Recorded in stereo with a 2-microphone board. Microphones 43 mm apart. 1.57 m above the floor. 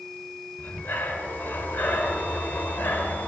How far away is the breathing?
About 2.5 m.